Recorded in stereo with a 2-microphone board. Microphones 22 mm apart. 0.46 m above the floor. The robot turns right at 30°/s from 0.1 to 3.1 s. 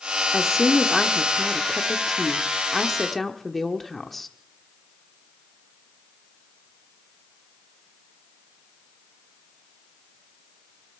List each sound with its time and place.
0.3 s a woman speaking: 20° right (ahead or behind), 0.9 m; by 4.3 s 5° left (ahead or behind), 0.9 m